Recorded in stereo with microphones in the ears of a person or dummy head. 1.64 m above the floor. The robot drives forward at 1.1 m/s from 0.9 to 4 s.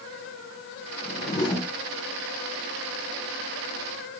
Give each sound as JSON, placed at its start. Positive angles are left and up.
{"t": 1.0, "sound": "a whoosh", "side_deg": 10, "distance_m": 1.6}